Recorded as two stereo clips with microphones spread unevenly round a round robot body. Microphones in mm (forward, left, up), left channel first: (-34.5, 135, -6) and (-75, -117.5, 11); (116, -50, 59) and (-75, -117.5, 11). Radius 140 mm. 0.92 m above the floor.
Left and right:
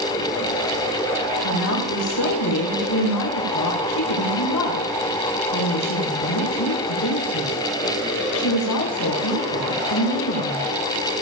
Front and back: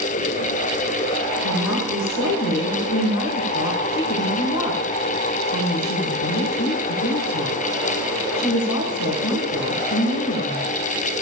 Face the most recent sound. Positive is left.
turn(degrees=50)